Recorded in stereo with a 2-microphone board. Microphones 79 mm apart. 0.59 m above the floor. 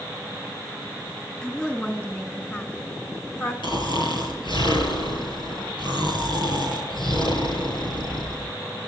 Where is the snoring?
75° left (ahead or behind), 5.5 m.